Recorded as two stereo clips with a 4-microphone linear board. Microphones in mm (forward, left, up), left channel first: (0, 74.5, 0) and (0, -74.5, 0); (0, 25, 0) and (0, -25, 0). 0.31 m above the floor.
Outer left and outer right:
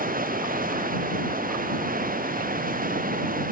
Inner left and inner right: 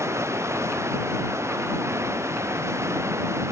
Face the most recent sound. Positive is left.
turn(degrees=-70)  # may be behind; listen again after turning